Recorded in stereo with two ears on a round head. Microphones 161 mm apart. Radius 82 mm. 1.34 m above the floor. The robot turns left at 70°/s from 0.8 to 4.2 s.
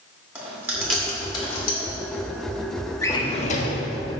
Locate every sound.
0.3 s chewing: 10° right (ahead or behind), 2.5 m; by 1.8 s 55° left (ahead or behind), 2.5 m
3.0 s a drawer: 165° left, 1.1 m; by 3.8 s 105° left, 1.1 m